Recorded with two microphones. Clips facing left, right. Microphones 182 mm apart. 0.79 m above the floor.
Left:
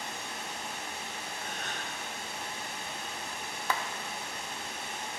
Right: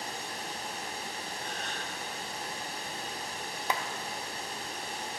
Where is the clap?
15° right (ahead or behind), 0.5 m.